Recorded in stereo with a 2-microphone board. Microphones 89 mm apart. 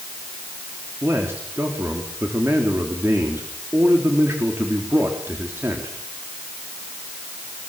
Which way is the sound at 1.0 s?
30° right (ahead or behind).